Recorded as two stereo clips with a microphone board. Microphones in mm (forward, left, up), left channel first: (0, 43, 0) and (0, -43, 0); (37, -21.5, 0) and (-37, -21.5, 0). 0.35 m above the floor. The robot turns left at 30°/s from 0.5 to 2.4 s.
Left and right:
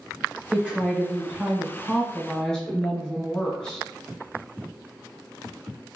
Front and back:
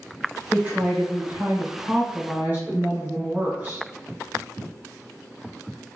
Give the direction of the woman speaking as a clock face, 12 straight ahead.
5 o'clock.